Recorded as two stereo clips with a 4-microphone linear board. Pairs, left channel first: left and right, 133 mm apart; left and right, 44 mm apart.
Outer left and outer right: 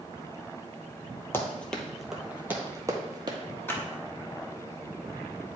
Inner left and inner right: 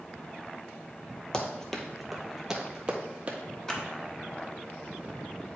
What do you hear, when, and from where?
1.3 s running footsteps: 15° left (ahead or behind), 1.1 m; by 3.4 s 35° right (ahead or behind), 1.3 m
3.7 s a clap: 15° left (ahead or behind), 1.3 m